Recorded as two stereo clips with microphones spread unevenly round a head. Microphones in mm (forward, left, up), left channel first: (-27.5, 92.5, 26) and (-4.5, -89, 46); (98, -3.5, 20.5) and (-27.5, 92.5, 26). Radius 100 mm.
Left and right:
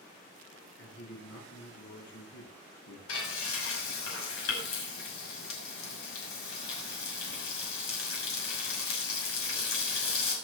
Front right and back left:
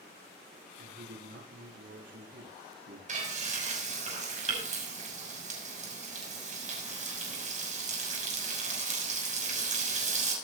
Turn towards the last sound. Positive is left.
turn(degrees=100)